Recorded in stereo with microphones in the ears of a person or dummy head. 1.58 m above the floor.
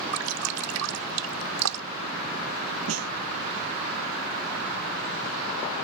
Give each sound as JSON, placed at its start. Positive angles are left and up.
{"t": 0.1, "sound": "dripping", "side_deg": -80}
{"t": 2.9, "sound": "a snare drum", "side_deg": -75}